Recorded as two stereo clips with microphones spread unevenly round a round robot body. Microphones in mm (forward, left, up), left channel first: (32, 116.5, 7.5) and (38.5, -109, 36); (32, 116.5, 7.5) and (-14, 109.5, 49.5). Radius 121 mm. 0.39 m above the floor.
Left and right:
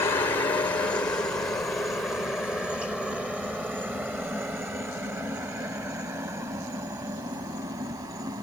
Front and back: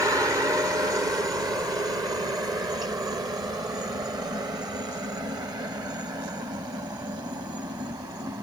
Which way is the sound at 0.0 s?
150° left.